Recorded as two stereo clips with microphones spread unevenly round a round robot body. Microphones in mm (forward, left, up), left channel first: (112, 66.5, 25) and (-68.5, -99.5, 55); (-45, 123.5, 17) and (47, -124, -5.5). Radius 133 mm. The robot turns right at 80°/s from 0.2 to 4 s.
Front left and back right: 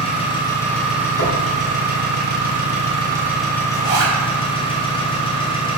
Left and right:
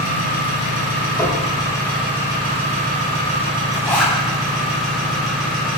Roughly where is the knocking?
Ahead left.